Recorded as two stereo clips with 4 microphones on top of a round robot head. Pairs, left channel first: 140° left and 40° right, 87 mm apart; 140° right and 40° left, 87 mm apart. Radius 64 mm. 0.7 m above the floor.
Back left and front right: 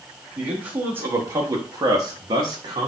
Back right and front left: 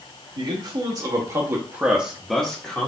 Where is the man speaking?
35° left, 1.2 m; by 2.9 s 75° right, 1.0 m.